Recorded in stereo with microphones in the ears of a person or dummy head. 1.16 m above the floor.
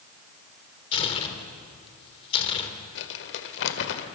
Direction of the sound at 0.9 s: 30° left (ahead or behind).